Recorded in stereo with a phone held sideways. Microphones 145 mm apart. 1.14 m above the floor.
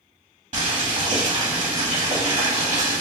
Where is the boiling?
55° right (ahead or behind), 1.7 m.